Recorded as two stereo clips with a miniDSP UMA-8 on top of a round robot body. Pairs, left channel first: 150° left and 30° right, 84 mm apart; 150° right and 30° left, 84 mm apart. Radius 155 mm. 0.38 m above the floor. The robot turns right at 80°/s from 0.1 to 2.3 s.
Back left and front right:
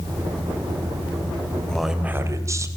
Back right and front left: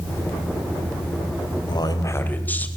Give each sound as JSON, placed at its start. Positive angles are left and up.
{"t": 1.7, "sound": "a man speaking", "azimuth_deg": -130, "distance_m": 3.0}